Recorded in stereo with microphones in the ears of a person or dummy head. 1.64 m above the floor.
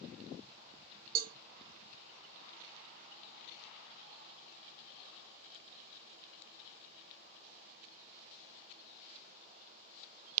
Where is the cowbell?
45° right (ahead or behind), 0.5 m.